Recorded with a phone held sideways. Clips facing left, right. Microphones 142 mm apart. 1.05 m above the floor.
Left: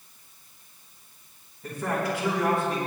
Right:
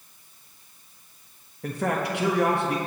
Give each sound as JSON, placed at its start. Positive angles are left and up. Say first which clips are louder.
{"t": 1.6, "sound": "a man speaking", "louder": "right 2 dB", "side_deg": -70, "distance_m": 1.2}